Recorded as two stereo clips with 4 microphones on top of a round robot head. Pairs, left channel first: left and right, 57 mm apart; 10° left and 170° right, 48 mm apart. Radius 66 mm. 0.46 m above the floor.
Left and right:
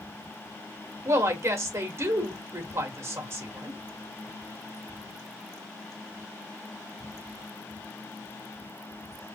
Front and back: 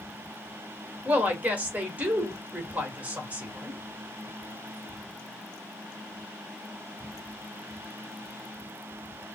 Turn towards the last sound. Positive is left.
turn(degrees=-115)